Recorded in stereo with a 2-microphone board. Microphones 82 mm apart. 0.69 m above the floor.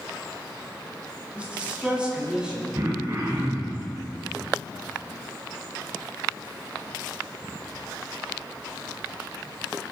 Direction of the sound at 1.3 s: 15° right (ahead or behind).